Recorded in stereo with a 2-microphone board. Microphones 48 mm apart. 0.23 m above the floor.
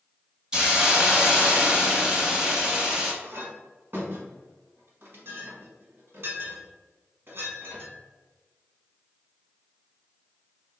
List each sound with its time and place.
0.5 s a hiss: 15° right (ahead or behind), 0.9 m
3.2 s a clink: 45° right (ahead or behind), 1.3 m